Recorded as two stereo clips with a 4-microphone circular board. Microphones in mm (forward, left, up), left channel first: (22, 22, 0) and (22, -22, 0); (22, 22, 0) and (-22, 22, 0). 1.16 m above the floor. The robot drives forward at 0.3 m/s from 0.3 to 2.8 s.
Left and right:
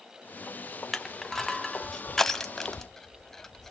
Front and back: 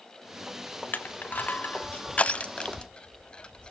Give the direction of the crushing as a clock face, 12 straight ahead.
12 o'clock.